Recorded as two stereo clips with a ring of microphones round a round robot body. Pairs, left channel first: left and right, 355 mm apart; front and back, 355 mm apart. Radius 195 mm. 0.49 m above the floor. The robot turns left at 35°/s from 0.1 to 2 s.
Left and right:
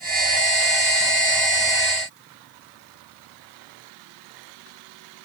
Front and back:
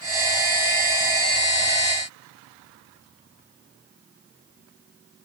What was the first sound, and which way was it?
Only background noise.